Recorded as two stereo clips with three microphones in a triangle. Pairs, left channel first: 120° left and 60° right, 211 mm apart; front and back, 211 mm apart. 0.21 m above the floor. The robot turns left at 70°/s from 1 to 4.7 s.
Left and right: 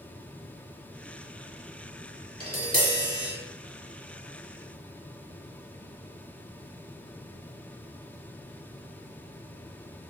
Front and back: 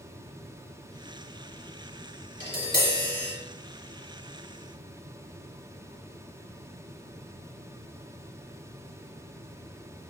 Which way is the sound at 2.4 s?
Straight ahead.